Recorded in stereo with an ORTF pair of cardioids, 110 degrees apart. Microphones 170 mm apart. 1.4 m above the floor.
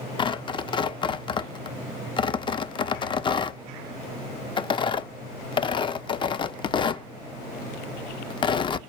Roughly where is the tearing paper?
Ahead left.